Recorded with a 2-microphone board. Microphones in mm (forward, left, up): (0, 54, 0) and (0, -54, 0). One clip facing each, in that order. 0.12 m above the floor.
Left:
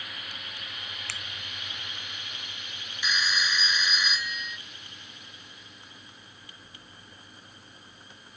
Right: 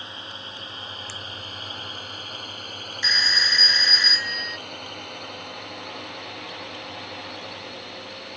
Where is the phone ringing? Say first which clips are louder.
Right 1 dB; 15° left (ahead or behind).